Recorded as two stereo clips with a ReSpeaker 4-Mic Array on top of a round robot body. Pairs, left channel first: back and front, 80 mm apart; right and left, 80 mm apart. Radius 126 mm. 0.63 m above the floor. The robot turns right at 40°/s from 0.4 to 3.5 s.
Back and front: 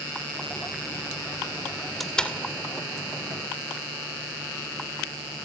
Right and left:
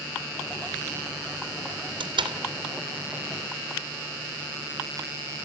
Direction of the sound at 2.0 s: 90° left.